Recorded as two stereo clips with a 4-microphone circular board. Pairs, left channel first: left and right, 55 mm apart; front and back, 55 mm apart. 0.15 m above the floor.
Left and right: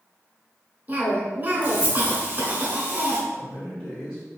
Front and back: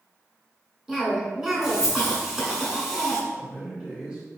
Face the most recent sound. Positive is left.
turn(degrees=145)